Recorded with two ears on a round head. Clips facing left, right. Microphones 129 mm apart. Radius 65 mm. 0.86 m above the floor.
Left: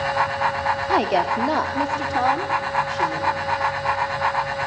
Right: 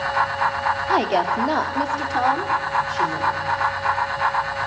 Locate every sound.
0.9 s a woman speaking: centre (ahead or behind), 1.4 m